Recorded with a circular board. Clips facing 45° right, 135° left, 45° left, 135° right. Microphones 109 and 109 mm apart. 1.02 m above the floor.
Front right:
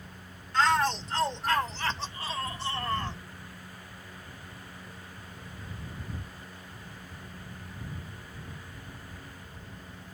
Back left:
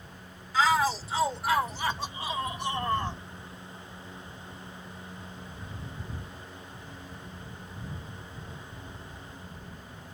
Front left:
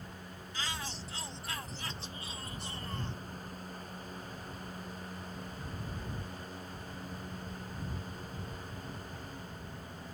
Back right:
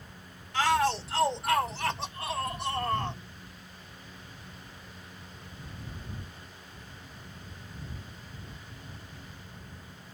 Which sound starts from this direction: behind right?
A shout, at 0.5 s.